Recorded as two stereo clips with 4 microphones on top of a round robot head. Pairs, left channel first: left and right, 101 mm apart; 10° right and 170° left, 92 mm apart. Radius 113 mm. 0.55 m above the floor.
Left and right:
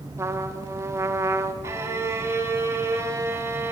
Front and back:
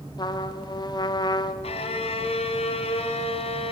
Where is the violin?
25° right, 1.5 m.